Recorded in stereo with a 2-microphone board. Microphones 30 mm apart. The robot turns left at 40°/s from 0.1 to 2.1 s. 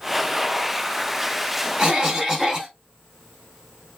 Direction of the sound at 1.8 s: 25° right (ahead or behind).